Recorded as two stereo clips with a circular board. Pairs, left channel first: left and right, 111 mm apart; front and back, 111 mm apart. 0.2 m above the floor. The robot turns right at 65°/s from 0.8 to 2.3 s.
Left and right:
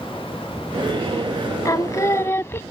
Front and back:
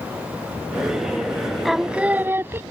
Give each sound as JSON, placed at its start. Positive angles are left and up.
{"t": 1.6, "sound": "singing", "azimuth_deg": 90}